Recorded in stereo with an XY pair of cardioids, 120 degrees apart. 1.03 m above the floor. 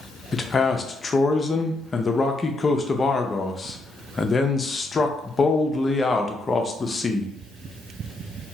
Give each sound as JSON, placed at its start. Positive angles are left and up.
{"t": 0.3, "sound": "a man speaking", "azimuth_deg": 25, "distance_m": 0.5}